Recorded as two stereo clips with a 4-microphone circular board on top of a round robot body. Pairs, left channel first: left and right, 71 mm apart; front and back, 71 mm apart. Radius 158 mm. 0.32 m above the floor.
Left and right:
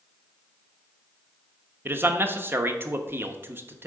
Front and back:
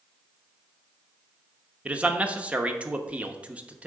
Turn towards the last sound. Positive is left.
turn(degrees=-120)